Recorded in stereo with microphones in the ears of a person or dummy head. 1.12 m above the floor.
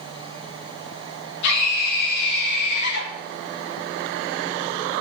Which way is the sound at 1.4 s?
60° left (ahead or behind).